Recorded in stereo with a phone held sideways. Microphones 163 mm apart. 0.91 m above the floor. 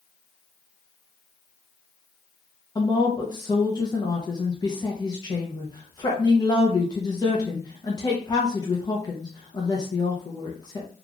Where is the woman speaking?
25° left (ahead or behind), 0.7 m.